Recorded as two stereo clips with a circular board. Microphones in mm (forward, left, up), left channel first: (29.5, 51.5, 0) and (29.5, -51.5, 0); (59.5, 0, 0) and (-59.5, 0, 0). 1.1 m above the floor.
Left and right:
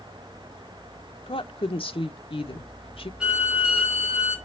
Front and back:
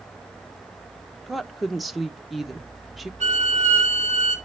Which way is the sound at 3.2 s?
170° right.